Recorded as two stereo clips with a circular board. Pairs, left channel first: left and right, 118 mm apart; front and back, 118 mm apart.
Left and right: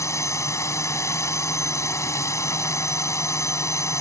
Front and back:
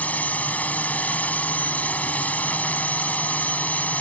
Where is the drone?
60° left.